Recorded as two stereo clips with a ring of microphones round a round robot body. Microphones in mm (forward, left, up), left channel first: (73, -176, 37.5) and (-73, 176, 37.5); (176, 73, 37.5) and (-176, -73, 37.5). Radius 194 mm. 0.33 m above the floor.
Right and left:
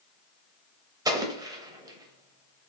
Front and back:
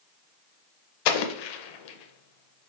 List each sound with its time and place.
1.1 s an explosion: 35° left, 0.6 m